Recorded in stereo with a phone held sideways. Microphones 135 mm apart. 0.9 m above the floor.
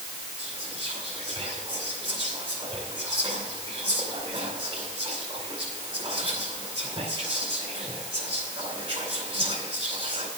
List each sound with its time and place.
0.4 s whispering: 40° right (ahead or behind), 6 m